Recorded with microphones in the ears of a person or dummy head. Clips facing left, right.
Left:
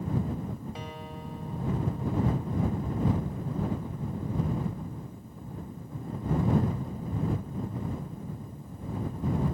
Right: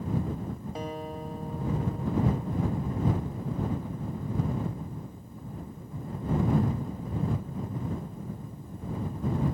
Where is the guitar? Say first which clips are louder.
Right 5 dB; 40° right (ahead or behind).